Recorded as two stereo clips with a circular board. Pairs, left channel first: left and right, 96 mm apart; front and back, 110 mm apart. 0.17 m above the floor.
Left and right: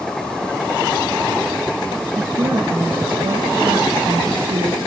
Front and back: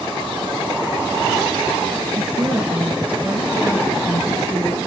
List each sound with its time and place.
2.1 s a woman speaking: 120° right, 3 m; by 4.8 s 85° right, 4 m